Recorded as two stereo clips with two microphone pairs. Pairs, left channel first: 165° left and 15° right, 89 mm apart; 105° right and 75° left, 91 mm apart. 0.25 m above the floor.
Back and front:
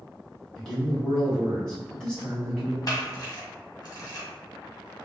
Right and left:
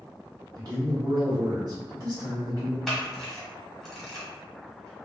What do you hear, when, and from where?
0.6 s a man speaking: 85° left, 2.0 m
2.9 s a camera shutter: 165° left, 1.3 m